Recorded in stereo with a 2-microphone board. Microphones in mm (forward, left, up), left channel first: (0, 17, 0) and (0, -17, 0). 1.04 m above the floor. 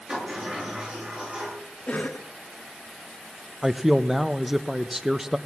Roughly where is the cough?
Left.